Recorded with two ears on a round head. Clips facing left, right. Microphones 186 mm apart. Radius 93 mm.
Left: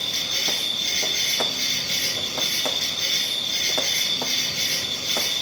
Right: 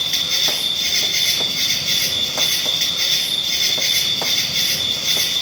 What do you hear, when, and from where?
0.0 s an insect: 80° right, 0.8 m